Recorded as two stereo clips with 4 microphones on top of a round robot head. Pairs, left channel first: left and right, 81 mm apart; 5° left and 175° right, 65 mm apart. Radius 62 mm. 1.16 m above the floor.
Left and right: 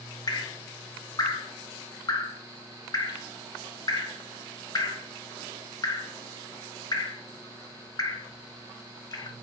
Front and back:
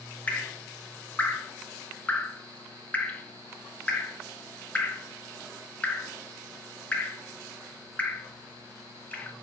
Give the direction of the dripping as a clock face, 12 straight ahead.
10 o'clock.